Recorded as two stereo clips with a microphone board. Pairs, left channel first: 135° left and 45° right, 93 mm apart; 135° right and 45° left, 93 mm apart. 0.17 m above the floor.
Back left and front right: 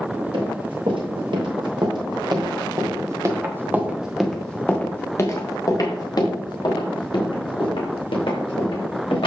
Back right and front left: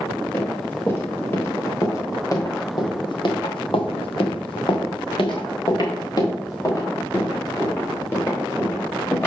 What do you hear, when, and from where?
0.3 s running footsteps: 65° right, 4.5 m; by 9.3 s 160° left, 6 m